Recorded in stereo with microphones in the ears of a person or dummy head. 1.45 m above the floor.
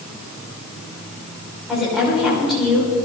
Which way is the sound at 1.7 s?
5° right (ahead or behind).